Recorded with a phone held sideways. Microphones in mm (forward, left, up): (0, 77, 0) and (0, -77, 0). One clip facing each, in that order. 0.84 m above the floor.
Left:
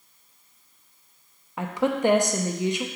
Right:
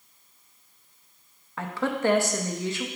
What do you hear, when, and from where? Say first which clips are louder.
1.6 s a woman speaking: left 3 dB; 15° left (ahead or behind), 0.7 m